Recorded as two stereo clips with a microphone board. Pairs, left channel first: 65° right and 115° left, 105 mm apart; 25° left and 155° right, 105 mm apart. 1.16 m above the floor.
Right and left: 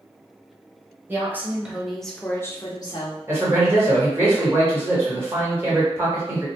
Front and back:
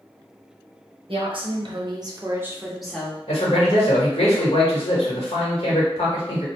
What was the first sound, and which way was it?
A woman speaking, straight behind.